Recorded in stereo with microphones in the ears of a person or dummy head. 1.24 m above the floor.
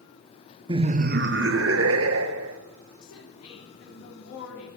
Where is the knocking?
No knocking in this recording.